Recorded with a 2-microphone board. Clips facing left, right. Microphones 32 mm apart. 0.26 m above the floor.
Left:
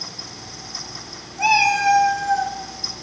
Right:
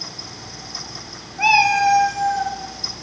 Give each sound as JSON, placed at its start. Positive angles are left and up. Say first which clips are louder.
{"t": 1.4, "sound": "a cat meowing", "louder": "right 2 dB", "side_deg": -35, "distance_m": 0.8}